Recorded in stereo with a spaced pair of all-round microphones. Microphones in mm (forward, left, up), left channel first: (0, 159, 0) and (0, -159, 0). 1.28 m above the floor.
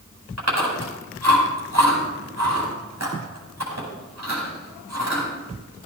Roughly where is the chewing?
Right.